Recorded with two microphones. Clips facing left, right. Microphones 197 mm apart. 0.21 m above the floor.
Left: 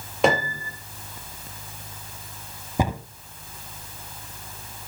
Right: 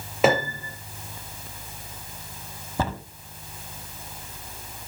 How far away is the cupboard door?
About 0.9 m.